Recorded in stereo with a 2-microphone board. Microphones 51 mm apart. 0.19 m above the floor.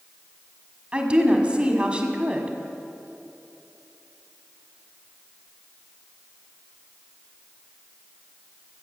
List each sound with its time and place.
0.9 s a woman speaking: 20° right (ahead or behind), 1.3 m